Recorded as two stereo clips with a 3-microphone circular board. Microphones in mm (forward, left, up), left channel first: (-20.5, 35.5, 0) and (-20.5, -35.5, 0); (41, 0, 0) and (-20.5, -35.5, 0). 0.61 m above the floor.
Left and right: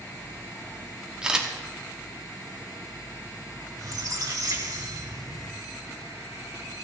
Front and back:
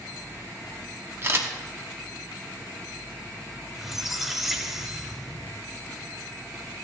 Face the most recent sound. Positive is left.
turn(degrees=-65)